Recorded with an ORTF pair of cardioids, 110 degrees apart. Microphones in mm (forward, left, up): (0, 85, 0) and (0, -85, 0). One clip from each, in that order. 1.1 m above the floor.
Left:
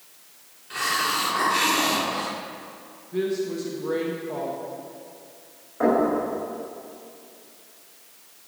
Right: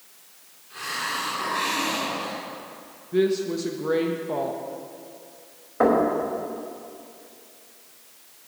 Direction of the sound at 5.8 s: 45° right.